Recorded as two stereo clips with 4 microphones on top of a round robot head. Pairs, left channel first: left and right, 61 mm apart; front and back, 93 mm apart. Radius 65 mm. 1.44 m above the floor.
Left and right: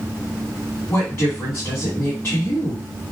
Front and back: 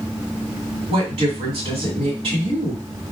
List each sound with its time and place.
0.9 s a woman speaking: 160° left, 2 m